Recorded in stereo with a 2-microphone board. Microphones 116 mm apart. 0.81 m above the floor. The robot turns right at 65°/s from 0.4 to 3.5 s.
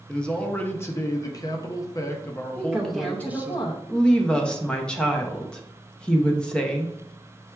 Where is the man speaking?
15° left, 0.6 m; by 3.5 s 145° right, 0.6 m.